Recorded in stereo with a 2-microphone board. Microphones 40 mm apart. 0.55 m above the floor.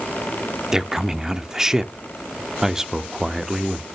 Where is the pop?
No pop in this recording.